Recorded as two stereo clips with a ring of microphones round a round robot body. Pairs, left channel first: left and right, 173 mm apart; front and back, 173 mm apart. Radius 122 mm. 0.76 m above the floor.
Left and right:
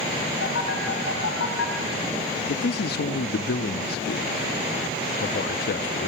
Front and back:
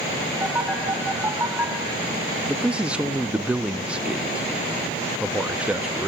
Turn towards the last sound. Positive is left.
turn(degrees=95)